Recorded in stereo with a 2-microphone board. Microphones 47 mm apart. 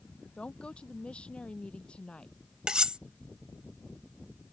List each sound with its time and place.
0.4 s a woman speaking: 20° left (ahead or behind)
2.7 s cutlery clinking: 15° right (ahead or behind)